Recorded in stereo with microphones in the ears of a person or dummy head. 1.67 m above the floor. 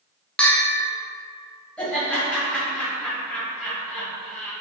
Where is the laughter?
10° left (ahead or behind), 1.7 m.